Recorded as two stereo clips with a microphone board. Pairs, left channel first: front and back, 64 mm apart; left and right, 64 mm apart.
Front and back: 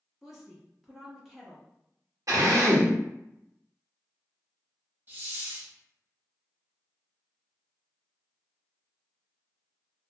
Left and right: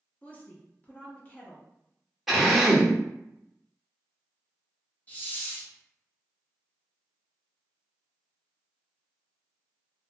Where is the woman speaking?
100° left, 0.7 m.